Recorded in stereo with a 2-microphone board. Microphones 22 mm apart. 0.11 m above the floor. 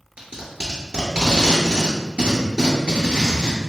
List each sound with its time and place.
0.2 s tape being pulled: 45° right (ahead or behind), 1.3 m